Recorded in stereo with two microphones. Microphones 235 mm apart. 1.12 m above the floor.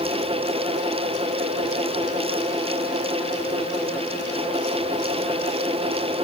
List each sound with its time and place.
Only background noise.